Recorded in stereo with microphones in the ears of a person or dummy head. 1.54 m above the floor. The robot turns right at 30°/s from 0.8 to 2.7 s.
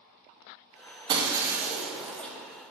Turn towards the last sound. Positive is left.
turn(degrees=20)